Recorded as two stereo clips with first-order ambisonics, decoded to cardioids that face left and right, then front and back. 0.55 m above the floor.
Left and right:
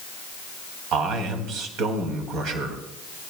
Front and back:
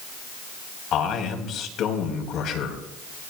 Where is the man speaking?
45° right, 3.5 m.